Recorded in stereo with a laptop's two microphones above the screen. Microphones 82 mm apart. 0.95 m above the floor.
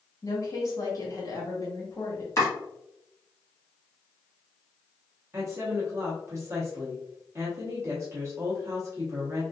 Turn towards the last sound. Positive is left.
turn(degrees=-35)  # may be behind; listen again after turning